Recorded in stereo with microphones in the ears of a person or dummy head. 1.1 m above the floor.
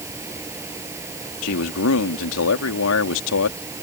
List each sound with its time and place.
0.0 s a fan: 10° right (ahead or behind)
1.4 s a man speaking: 70° left (ahead or behind)